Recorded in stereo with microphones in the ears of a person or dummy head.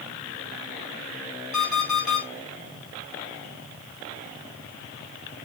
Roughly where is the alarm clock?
Centre.